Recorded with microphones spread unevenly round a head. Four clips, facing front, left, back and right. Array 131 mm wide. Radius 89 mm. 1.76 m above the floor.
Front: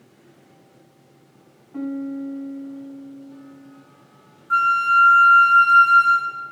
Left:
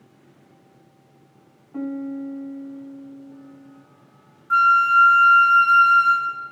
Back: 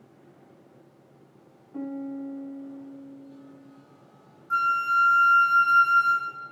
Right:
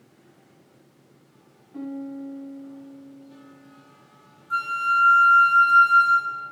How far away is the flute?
About 0.6 m.